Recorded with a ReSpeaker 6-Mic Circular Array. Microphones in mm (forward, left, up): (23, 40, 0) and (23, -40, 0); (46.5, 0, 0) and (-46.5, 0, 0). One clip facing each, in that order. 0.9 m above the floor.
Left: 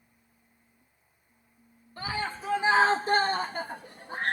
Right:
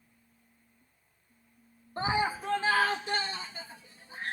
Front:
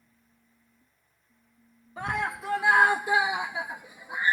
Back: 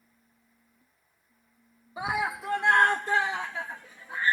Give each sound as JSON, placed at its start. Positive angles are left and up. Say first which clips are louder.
{"t": 2.0, "sound": "a scream", "louder": "right 4 dB, back 1 dB", "azimuth_deg": -105}